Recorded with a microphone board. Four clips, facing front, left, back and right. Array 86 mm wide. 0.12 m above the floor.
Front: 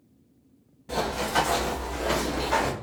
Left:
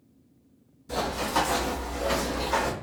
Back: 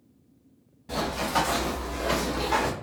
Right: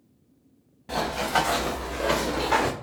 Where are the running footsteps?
80° right, 1.9 m; by 2.7 s 85° right, 0.9 m.